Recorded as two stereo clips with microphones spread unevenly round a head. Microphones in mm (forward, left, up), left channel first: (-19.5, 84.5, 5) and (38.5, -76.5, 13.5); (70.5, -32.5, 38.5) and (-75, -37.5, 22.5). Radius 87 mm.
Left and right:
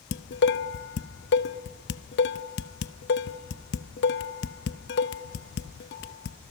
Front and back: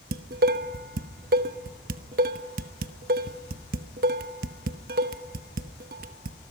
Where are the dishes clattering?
135° left, 0.8 m.